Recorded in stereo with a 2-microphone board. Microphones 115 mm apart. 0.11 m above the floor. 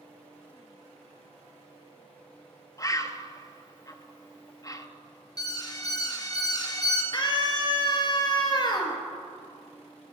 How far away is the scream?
About 2 m.